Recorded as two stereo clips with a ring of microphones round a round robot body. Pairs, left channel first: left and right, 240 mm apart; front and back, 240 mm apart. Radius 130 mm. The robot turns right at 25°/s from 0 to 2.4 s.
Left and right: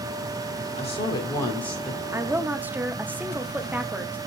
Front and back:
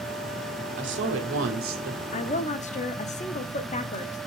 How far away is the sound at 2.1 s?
About 1.0 m.